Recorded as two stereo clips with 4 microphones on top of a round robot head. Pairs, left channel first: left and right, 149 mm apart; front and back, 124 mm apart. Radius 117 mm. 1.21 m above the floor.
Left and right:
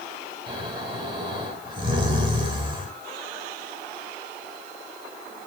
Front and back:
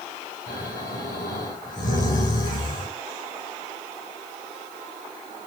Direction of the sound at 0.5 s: 35° right.